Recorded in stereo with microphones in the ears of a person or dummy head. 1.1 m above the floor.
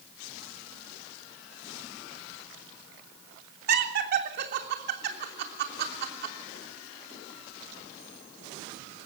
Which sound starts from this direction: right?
Laughter, at 3.7 s.